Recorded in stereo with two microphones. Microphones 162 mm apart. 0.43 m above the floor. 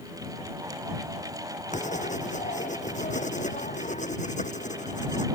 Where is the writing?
50° left (ahead or behind).